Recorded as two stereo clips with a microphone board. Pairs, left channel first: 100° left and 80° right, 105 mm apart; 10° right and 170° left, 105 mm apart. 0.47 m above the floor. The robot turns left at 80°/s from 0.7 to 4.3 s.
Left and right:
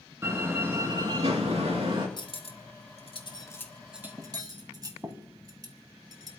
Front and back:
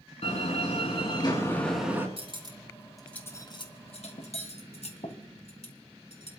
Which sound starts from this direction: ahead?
A door slam, at 0.2 s.